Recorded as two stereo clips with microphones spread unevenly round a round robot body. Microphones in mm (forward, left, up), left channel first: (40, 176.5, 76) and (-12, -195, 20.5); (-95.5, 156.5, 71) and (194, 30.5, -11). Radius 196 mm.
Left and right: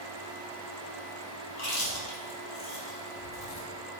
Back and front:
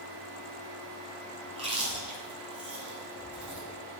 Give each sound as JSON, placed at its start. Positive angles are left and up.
{"t": 1.5, "sound": "chewing", "azimuth_deg": 50, "distance_m": 3.5}